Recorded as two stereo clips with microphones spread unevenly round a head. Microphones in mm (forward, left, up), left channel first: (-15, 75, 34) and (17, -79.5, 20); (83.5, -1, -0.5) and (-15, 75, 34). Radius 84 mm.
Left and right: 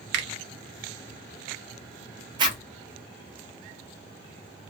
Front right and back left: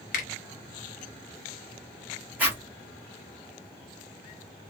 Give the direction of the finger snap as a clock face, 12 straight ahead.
2 o'clock.